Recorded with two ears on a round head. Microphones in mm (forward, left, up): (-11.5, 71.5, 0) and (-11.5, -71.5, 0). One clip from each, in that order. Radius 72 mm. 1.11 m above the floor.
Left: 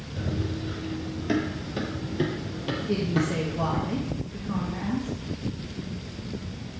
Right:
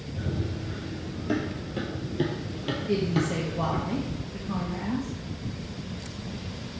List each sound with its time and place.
0.2 s running footsteps: 55° left (ahead or behind), 1.9 m; by 3.8 s 25° right (ahead or behind), 2 m
2.8 s a woman speaking: 5° right (ahead or behind), 1.3 m